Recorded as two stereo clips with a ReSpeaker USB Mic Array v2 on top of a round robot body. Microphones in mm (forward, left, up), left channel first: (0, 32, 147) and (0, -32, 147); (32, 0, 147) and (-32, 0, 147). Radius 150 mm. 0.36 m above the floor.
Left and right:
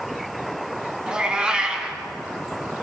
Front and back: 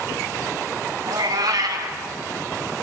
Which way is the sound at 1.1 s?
165° right.